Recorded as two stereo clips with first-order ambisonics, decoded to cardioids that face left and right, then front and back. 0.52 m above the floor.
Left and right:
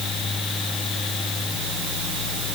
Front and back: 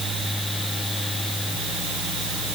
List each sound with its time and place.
Only background noise.